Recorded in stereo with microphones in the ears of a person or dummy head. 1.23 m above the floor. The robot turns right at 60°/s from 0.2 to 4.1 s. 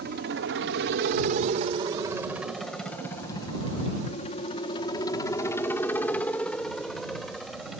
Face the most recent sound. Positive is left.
turn(degrees=0)  # may be behind; listen again after turning